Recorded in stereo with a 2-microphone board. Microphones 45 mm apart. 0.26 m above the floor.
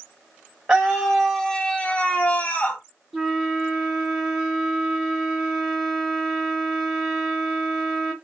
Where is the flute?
Centre (ahead or behind), 1.5 m.